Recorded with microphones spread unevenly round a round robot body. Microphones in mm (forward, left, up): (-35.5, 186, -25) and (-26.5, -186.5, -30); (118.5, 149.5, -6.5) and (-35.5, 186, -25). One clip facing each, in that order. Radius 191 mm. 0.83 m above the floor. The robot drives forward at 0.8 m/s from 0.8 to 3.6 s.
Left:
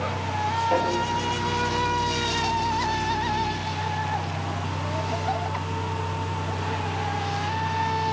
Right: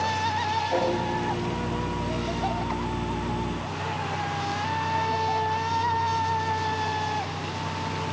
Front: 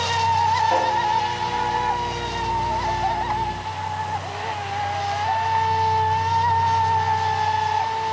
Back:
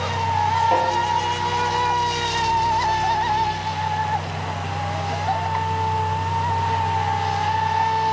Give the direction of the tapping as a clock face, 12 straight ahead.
9 o'clock.